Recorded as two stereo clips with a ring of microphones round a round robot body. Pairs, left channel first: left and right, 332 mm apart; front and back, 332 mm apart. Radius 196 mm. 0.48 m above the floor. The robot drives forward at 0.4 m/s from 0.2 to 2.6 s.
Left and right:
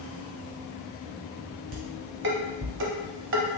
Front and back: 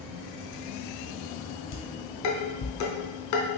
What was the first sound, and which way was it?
Dishes clattering, 25° right.